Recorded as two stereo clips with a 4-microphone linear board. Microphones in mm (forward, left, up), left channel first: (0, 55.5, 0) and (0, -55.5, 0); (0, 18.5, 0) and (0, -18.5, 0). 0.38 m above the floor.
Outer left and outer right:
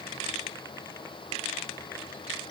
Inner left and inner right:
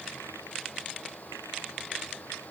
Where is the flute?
I don't hear a flute.